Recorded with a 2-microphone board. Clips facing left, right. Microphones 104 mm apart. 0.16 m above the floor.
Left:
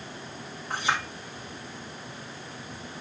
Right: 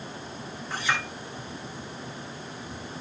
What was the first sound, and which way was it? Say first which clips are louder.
A clink: left 1 dB; 65° left (ahead or behind).